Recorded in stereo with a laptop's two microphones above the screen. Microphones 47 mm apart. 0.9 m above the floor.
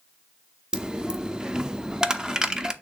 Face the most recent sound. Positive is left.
turn(degrees=-15)  # may be behind; listen again after turning